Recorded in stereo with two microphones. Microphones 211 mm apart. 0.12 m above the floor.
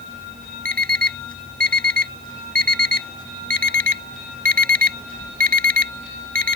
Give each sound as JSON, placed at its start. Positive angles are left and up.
{"t": 0.7, "sound": "an alarm clock", "side_deg": -40}